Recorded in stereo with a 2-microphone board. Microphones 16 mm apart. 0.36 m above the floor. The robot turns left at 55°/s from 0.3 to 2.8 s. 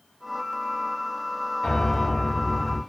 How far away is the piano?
About 1.3 m.